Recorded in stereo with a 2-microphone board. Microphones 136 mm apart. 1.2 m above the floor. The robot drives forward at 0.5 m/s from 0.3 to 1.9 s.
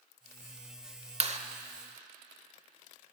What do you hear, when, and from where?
1.2 s a clap: 45° right (ahead or behind), 0.8 m; by 1.4 s 55° right (ahead or behind), 0.7 m